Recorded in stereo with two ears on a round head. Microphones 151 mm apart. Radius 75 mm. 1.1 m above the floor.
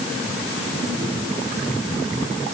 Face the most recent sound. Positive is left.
No sound to turn to.